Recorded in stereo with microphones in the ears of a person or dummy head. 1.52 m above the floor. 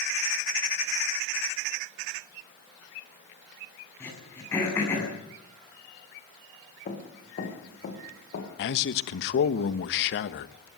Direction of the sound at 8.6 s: 60° left (ahead or behind).